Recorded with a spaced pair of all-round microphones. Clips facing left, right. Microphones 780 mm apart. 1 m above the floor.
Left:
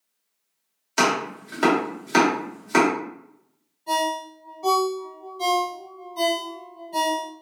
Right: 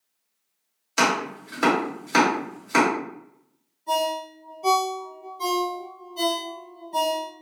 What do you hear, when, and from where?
1.0 s chopping: 5° left (ahead or behind), 1.0 m
3.9 s a ringtone: 35° left (ahead or behind), 1.5 m